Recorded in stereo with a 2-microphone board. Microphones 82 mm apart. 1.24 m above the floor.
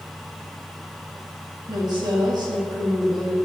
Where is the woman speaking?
60° right (ahead or behind), 2 m.